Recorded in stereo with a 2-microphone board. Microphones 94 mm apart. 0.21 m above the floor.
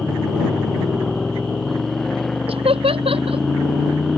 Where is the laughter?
75° right (ahead or behind).